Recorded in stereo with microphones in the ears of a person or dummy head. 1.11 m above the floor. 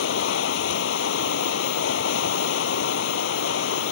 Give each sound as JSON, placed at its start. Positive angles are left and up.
{"t": 0.0, "sound": "running water", "side_deg": 75}